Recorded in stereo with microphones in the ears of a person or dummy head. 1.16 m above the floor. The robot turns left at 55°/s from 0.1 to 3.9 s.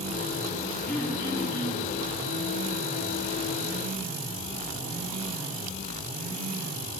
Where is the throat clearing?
175° left, 3 m; by 1.9 s 115° left, 3 m.